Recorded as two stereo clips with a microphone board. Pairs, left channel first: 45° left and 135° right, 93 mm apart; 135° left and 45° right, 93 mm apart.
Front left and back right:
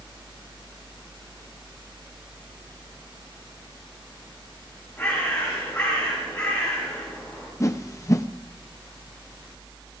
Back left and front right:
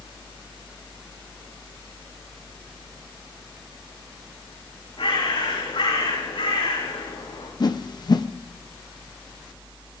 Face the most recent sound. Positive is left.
turn(degrees=100)